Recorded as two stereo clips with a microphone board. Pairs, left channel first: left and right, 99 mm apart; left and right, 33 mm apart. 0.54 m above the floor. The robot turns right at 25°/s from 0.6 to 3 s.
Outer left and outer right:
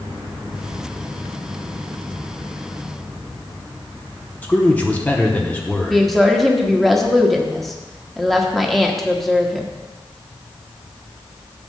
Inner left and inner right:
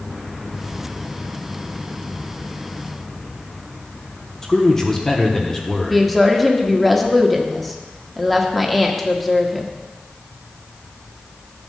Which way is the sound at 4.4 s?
15° left (ahead or behind).